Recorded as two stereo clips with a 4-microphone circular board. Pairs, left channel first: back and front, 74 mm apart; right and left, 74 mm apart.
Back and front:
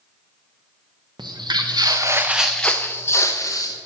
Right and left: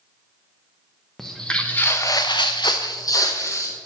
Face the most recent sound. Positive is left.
turn(degrees=-135)